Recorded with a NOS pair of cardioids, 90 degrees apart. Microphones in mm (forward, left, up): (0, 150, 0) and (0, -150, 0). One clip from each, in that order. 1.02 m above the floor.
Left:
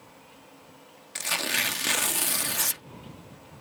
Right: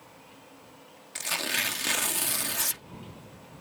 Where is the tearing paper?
10° left.